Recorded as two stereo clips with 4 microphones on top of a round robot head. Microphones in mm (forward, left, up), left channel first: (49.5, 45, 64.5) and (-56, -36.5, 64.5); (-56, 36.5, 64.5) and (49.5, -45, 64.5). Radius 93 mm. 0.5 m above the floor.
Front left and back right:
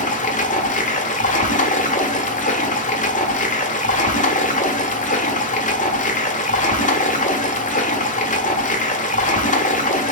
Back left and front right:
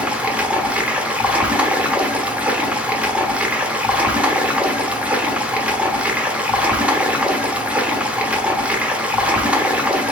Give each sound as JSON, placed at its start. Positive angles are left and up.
{"t": 0.0, "sound": "running water", "azimuth_deg": 40, "distance_m": 1.0}